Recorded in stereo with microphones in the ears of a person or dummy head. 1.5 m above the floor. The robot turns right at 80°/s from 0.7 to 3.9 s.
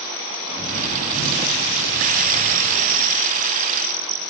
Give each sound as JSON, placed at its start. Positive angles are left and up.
{"t": 0.5, "sound": "a bird", "azimuth_deg": -15, "distance_m": 1.9}